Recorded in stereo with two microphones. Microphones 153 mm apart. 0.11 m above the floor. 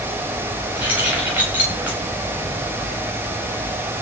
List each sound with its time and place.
0.8 s keys jangling: 10° right (ahead or behind), 8.5 m